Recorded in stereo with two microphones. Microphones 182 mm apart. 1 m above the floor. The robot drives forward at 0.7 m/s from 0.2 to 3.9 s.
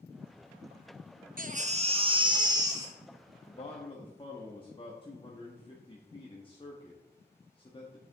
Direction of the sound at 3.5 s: 35° left (ahead or behind).